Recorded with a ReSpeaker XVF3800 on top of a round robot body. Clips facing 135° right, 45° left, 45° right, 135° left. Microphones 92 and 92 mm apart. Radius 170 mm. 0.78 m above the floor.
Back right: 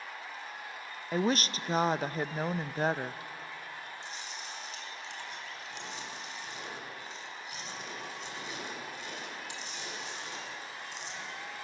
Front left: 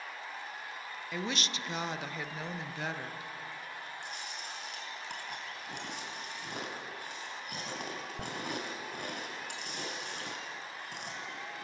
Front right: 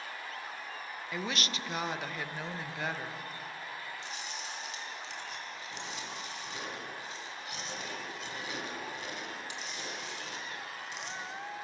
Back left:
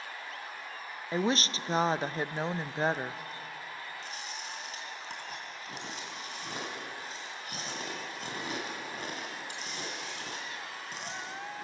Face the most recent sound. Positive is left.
turn(degrees=85)